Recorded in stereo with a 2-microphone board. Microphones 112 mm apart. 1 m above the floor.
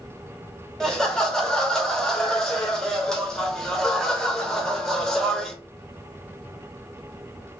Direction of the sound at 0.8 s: 5° left (ahead or behind).